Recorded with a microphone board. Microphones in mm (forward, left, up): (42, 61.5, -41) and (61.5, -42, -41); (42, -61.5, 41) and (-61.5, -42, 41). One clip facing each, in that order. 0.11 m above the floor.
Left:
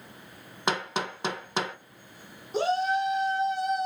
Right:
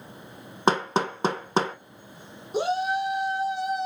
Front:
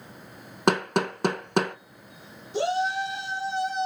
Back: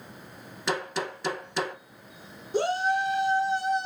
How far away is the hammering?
About 1.1 m.